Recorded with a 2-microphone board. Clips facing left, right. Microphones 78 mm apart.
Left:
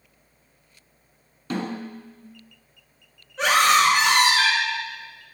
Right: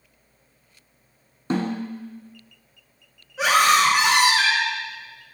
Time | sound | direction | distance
1.5 | a snare drum | 30° right (ahead or behind) | 1.2 m
3.4 | a scream | 5° right (ahead or behind) | 1.4 m